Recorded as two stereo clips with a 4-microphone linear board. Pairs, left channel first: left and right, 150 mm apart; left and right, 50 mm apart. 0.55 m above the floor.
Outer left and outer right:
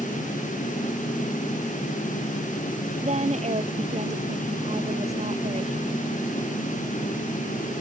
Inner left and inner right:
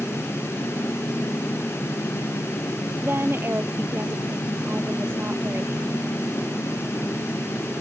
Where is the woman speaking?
50° right (ahead or behind).